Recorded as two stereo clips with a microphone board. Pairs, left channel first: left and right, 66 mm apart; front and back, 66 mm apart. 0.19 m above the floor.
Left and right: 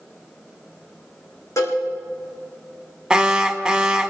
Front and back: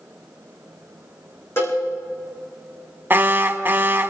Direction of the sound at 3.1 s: 160° right.